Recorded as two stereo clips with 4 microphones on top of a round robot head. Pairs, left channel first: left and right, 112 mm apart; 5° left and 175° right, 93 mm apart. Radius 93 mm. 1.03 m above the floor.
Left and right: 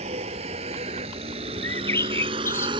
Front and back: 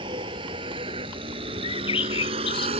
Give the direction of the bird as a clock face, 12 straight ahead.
11 o'clock.